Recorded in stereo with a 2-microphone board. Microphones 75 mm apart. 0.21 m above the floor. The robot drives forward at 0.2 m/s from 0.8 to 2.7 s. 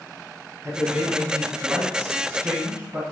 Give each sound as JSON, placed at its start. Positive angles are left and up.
{"t": 0.6, "sound": "a man speaking", "side_deg": -30, "distance_m": 1.4}